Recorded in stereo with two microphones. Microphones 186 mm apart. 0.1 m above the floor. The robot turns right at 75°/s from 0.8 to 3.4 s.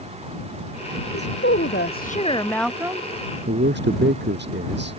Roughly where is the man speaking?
Right.